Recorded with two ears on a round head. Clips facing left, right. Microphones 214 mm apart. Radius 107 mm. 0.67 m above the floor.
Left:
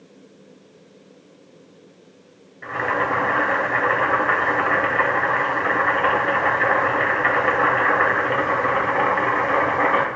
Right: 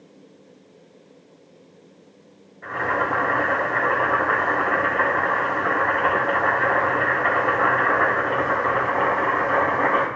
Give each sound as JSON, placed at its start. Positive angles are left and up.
{"t": 2.6, "sound": "boiling", "side_deg": 45, "distance_m": 3.0}